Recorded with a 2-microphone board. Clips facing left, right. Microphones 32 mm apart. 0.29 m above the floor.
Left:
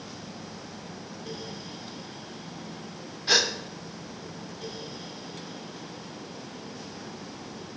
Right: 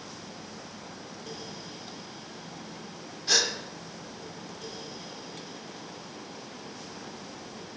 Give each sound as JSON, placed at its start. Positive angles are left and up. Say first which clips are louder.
{"t": 3.3, "sound": "a gasp", "louder": "left 3 dB", "side_deg": 30, "distance_m": 0.8}